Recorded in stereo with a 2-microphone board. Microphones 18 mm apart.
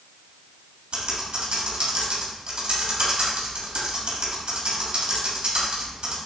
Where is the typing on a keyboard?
75° right (ahead or behind), 3 m.